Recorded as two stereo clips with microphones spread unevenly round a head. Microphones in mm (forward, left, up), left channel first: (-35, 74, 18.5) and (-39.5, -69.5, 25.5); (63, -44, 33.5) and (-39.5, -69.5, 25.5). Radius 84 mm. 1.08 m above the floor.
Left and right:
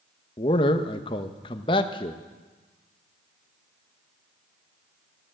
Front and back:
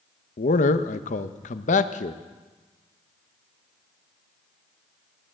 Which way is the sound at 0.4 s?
25° left.